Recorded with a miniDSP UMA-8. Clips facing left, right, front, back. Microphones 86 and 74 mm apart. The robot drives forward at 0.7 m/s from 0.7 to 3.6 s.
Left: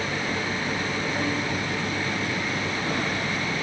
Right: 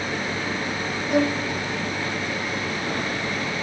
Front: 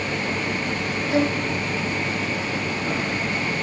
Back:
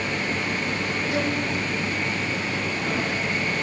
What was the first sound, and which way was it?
A violin, 65° right.